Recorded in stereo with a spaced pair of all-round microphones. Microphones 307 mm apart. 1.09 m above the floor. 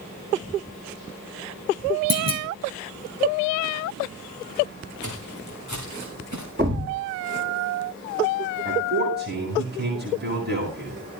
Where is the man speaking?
35° right (ahead or behind), 10 m.